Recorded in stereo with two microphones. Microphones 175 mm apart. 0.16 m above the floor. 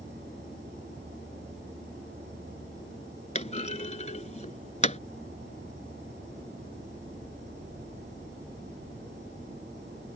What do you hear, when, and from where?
0.0 s an insect: 80° right
3.4 s a clunk: 40° left (ahead or behind)